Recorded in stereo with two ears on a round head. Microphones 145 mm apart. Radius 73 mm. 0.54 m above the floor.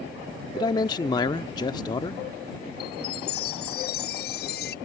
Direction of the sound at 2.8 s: 65° left (ahead or behind).